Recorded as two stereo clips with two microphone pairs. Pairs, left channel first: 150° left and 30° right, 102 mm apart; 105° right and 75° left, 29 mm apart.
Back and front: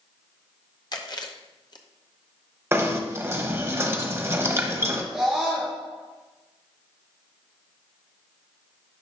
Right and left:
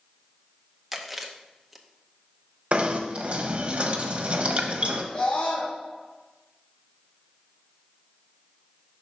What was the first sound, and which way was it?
Chewing, 165° left.